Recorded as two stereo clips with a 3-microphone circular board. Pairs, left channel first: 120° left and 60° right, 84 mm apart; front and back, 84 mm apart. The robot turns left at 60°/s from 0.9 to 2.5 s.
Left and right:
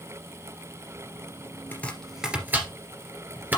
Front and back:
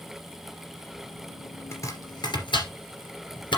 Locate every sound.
1.7 s chopping: 55° left, 2.5 m; by 3.6 s 5° left, 2.5 m